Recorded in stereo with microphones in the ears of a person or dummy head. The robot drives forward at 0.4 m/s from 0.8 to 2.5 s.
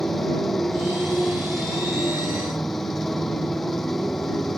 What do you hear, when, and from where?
0.0 s a motorcycle: 5° left (ahead or behind)